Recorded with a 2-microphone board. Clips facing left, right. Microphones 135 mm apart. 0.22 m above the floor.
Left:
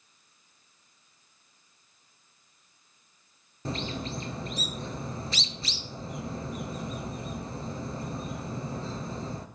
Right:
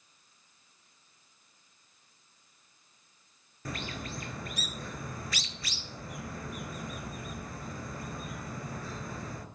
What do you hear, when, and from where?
3.6 s a bird: 25° left (ahead or behind), 0.8 m